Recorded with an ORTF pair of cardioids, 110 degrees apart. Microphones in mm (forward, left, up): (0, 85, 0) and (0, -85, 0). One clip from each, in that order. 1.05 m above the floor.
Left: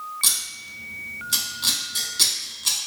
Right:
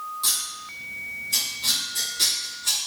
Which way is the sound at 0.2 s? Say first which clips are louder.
Left 3 dB; 50° left.